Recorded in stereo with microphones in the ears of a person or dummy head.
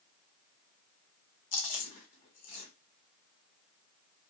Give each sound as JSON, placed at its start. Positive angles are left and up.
{"t": 1.5, "sound": "chewing", "side_deg": 45, "distance_m": 1.0}